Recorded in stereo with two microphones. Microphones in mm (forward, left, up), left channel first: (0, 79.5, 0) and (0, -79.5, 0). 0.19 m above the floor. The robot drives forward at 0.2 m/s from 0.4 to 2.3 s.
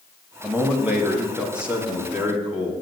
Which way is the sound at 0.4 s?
10° right (ahead or behind).